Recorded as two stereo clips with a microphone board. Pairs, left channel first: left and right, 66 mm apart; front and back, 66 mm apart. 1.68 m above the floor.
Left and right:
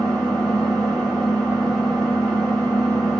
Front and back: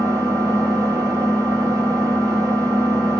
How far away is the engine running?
About 1.7 m.